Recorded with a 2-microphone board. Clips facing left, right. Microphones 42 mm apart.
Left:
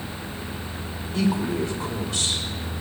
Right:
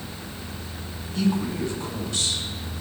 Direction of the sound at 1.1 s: 80° left.